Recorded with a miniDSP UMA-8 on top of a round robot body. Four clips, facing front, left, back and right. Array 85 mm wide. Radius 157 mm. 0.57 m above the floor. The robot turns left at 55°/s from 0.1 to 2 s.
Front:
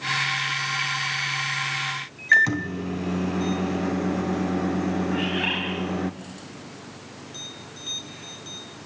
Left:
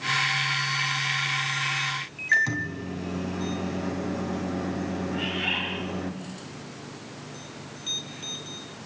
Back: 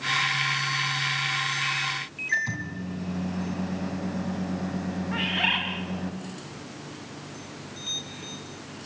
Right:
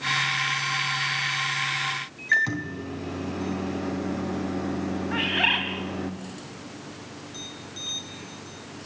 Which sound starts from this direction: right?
A bird, at 5.1 s.